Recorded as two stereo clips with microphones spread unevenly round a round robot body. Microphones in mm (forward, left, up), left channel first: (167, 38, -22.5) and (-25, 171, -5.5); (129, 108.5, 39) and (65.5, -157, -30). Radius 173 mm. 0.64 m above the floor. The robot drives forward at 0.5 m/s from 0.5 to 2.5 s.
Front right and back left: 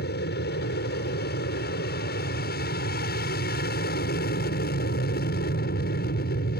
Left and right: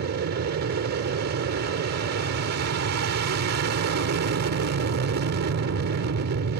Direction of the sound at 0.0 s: 80° right.